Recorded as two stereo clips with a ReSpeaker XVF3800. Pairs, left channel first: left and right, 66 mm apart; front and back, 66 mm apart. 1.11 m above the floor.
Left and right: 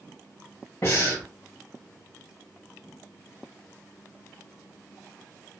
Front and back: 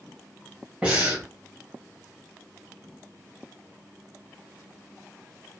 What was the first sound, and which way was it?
Breathing, 110° left.